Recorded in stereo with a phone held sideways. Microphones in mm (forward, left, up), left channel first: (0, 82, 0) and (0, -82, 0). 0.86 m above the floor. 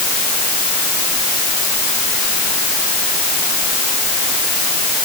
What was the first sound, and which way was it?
Only background noise.